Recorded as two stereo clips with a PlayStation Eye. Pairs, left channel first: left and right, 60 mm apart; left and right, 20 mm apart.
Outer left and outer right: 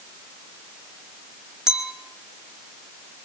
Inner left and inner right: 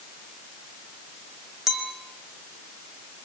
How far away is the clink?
About 4 m.